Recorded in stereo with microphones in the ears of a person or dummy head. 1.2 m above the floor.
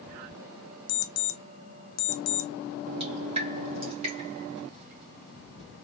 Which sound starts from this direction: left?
An alarm clock, at 0.9 s.